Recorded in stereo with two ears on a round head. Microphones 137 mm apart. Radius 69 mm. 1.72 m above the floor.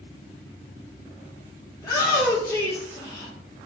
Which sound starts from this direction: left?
A shout, at 1.8 s.